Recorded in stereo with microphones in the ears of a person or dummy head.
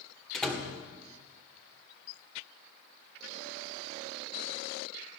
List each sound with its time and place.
0.3 s a door slam: 5° left (ahead or behind), 1.9 m